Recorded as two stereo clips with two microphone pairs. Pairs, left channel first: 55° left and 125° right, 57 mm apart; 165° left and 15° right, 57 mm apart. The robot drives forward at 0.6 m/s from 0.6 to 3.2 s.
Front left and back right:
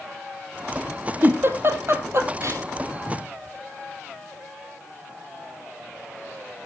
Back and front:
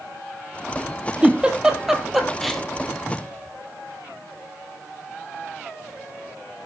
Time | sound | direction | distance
1.2 | a giggle | 80° right | 1.9 m
3.1 | a cupboard door | 170° left | 1.2 m